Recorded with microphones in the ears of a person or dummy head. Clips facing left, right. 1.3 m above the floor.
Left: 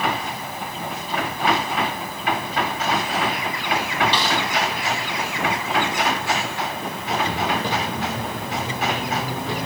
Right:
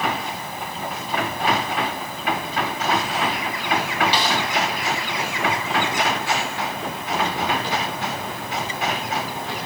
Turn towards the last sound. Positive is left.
turn(degrees=55)  # may be behind; listen again after turning